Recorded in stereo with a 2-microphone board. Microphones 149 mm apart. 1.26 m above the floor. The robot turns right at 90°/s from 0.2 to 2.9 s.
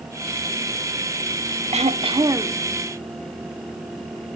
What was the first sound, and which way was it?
Throat clearing, 90° right.